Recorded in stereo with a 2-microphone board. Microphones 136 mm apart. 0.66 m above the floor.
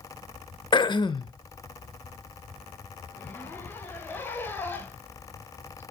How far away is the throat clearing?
About 0.6 m.